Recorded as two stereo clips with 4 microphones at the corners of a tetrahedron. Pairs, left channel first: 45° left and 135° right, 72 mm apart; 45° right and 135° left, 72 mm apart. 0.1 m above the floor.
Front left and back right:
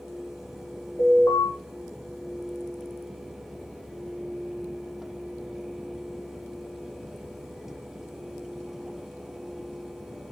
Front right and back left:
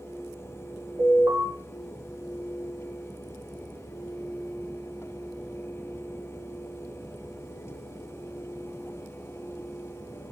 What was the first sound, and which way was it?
An alarm, 95° left.